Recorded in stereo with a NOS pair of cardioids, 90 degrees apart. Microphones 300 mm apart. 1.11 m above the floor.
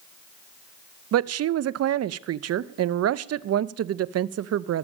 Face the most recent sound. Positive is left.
turn(degrees=-50)